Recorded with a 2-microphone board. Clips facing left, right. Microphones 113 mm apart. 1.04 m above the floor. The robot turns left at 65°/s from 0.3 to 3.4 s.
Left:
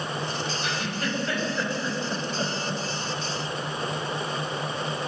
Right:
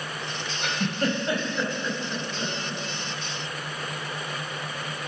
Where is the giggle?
65° right (ahead or behind), 5 m; by 2.8 s 75° left (ahead or behind), 5 m.